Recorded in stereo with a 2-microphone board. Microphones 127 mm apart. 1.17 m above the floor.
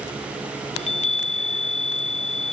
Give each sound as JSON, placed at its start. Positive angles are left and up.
{"t": 0.8, "sound": "a chime", "side_deg": 65}